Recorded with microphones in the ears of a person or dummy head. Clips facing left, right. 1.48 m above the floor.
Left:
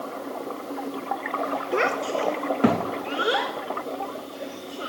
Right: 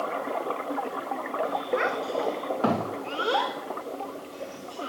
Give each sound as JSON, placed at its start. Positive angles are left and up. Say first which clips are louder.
{"t": 1.7, "sound": "a child speaking", "louder": "left 3 dB", "side_deg": 50, "distance_m": 1.2}